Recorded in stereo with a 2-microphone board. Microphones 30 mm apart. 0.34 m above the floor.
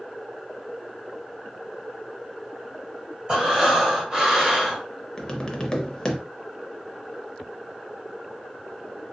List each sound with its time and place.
3.3 s breathing: 20° right (ahead or behind), 1.4 m
5.2 s tapping: 25° left (ahead or behind), 0.7 m